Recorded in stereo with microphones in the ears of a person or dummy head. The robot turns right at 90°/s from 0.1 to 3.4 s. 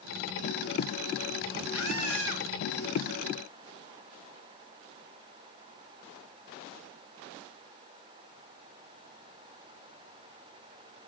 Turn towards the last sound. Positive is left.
turn(degrees=30)